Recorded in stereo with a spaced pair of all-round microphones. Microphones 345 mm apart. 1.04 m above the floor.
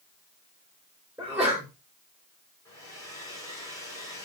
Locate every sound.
1.2 s a sneeze: 5° right (ahead or behind), 3.5 m
2.6 s a hair dryer: 10° left (ahead or behind), 5 m